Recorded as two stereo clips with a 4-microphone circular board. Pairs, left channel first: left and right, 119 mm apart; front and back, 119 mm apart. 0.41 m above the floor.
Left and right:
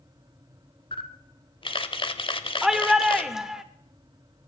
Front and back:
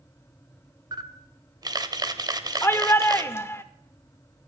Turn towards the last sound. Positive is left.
turn(degrees=-10)